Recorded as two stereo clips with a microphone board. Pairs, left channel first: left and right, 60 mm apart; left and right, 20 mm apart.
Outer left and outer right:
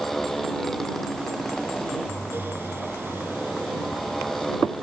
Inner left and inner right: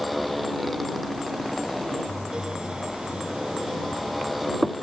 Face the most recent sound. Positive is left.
turn(degrees=5)  # may be behind; listen again after turning